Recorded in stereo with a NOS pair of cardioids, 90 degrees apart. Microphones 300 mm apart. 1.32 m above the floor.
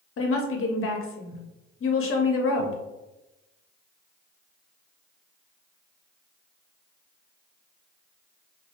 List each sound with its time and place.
0.2 s a woman speaking: 45° left, 0.8 m